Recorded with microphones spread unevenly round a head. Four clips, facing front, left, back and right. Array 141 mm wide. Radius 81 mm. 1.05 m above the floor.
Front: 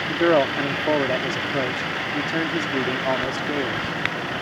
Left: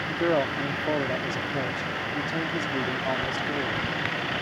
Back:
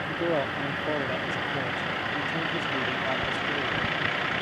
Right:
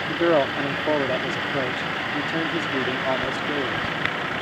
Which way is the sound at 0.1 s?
30° right.